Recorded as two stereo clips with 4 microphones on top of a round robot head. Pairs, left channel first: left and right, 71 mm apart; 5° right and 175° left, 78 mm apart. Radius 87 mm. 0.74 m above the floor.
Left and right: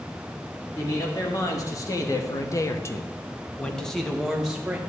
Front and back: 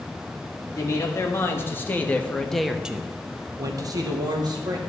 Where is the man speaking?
45° left, 1.9 m; by 4.8 s 170° right, 1.5 m.